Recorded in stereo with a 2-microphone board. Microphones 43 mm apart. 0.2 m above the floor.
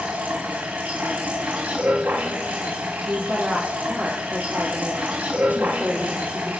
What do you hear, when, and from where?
0.0 s running water: 45° right (ahead or behind), 7 m
3.0 s a woman speaking: 60° right (ahead or behind), 7.5 m